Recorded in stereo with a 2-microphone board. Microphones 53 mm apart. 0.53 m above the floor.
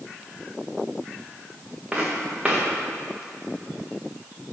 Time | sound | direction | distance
1.9 | footsteps | 10° right (ahead or behind) | 2.5 m